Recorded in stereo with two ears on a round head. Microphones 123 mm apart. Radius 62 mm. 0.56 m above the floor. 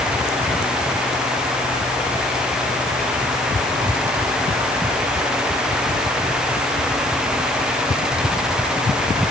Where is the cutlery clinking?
No cutlery clinking in this recording.